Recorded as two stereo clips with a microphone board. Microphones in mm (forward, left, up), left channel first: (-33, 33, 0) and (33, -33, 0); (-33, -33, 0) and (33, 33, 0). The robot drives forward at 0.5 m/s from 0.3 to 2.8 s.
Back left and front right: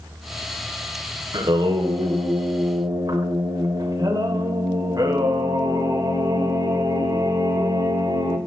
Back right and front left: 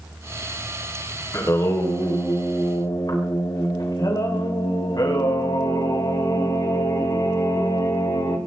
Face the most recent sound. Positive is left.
turn(degrees=-90)